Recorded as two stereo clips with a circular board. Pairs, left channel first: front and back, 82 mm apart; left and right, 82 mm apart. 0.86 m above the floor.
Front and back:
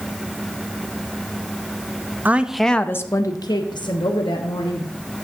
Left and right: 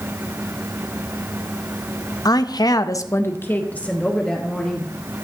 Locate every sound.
2.2 s a woman speaking: 115° left, 0.6 m; by 4.9 s 5° left, 1.6 m